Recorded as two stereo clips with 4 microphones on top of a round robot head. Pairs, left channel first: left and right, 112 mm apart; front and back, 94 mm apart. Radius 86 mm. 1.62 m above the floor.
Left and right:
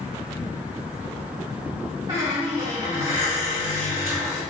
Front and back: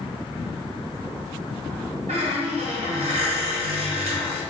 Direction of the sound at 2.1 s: 160° right.